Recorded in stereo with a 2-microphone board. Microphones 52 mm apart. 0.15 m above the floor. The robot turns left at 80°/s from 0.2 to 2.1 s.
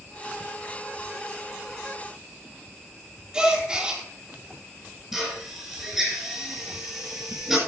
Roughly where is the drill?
Centre.